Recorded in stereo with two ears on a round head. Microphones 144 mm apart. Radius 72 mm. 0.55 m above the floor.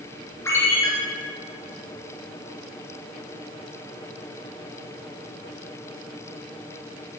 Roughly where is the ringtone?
Centre.